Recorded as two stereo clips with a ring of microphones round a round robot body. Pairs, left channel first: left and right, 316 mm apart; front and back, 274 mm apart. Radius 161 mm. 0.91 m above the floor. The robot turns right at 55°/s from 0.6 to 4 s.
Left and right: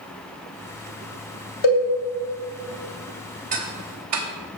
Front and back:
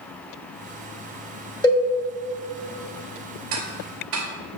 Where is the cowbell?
75° left, 1.8 m; by 1.8 s 85° left, 1.8 m.